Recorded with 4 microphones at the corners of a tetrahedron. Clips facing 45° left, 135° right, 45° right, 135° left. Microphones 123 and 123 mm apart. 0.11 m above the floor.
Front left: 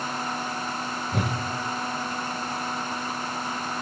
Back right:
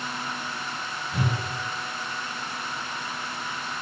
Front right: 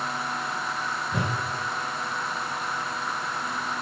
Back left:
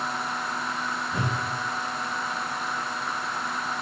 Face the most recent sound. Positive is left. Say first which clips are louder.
# even, front right 1 dB
turn(degrees=20)